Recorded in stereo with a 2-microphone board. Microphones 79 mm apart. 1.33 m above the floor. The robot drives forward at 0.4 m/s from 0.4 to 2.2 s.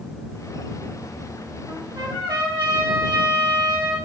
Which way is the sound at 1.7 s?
70° right (ahead or behind).